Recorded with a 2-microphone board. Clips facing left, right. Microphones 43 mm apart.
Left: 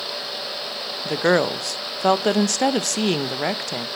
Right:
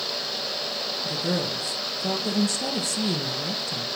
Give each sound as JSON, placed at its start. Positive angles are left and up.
{"t": 1.1, "sound": "a woman speaking", "side_deg": 60, "distance_m": 0.5}